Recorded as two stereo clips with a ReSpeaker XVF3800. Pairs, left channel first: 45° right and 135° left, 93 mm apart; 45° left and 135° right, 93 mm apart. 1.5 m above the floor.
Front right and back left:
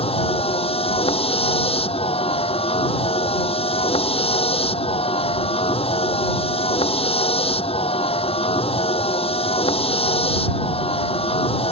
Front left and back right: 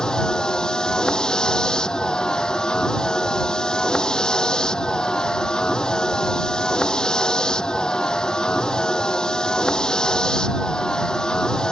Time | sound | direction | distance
0.0 | a vehicle | 40° right | ?